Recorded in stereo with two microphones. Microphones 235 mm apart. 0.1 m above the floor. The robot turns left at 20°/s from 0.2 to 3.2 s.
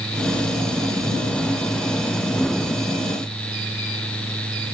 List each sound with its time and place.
Only background noise.